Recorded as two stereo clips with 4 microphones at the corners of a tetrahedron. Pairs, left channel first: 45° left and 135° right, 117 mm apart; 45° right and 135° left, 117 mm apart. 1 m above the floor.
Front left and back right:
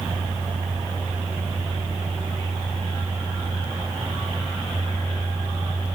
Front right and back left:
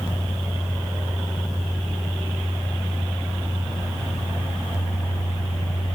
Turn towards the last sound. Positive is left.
No sound to turn to.